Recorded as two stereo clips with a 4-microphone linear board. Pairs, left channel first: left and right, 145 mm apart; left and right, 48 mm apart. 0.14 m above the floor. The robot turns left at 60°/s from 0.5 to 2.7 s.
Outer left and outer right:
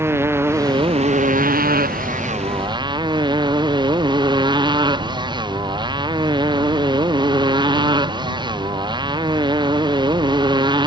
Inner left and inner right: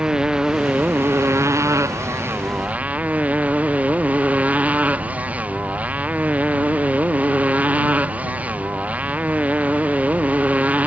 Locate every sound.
0.0 s a motorcycle: 15° right; by 10.9 s 150° right